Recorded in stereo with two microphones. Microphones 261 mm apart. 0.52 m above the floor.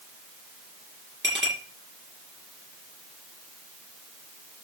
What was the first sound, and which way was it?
A clink, 45° right (ahead or behind).